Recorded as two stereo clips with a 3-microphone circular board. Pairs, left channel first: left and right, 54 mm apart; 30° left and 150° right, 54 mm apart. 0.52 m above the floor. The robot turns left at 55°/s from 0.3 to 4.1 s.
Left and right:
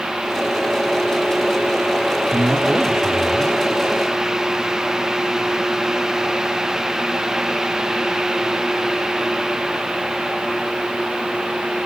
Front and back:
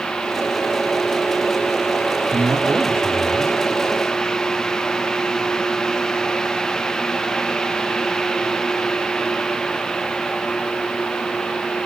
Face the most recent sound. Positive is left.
turn(degrees=120)